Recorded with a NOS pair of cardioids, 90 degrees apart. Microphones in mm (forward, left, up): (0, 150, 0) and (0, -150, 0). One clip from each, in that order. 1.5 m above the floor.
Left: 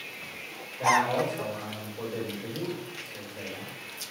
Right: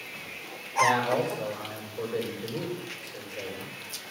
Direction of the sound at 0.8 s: 40° right.